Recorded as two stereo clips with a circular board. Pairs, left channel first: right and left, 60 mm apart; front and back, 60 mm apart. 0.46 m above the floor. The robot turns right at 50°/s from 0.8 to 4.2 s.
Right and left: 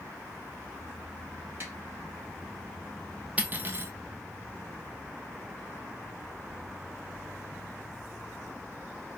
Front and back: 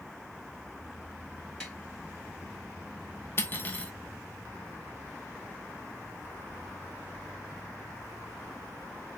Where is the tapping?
65° left, 1.8 m; by 1.8 s 75° left, 1.8 m.